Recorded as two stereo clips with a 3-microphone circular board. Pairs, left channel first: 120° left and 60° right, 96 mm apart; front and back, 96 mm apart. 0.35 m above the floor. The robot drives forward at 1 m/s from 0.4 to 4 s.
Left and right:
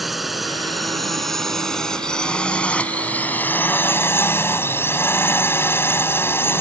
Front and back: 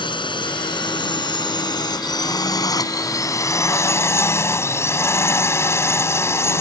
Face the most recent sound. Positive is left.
turn(degrees=60)